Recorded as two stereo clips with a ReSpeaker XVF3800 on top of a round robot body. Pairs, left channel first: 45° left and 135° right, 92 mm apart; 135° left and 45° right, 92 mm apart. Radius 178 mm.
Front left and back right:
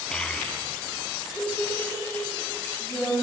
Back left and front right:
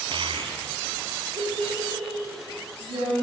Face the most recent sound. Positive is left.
turn(degrees=-25)